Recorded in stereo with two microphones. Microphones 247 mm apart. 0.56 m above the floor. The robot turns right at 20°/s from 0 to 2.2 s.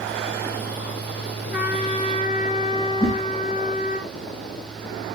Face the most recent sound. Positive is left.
turn(degrees=35)  # may be behind; listen again after turning